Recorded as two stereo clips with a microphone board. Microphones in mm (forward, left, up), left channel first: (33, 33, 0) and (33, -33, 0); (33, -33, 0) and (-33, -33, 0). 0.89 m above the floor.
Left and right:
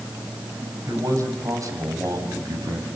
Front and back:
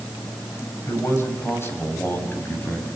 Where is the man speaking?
50° right, 5.5 m; by 2.9 s 60° right, 6.5 m.